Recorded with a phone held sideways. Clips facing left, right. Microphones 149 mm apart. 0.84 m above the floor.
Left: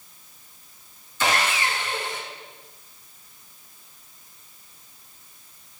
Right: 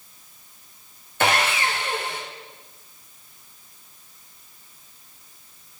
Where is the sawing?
60° right (ahead or behind), 0.7 m.